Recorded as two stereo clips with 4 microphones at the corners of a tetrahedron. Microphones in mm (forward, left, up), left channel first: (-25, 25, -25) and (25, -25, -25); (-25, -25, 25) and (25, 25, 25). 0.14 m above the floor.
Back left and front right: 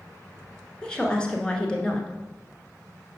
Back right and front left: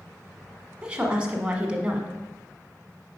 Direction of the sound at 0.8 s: 90° left.